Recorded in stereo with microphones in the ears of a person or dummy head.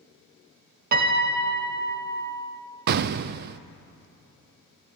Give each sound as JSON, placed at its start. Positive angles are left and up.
{"t": 0.9, "sound": "a piano", "side_deg": -50, "distance_m": 1.5}
{"t": 2.9, "sound": "an explosion", "side_deg": -50, "distance_m": 0.5}